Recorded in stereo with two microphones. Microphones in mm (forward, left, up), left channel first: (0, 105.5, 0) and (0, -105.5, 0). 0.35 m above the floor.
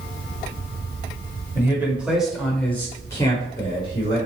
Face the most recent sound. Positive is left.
turn(degrees=25)  # may be behind; listen again after turning